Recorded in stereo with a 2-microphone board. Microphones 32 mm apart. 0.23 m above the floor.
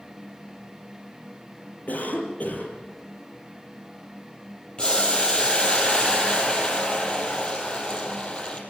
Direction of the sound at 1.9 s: 55° left (ahead or behind).